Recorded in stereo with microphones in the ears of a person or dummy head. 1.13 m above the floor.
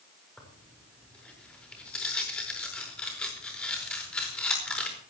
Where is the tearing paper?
5° left (ahead or behind), 4.5 m.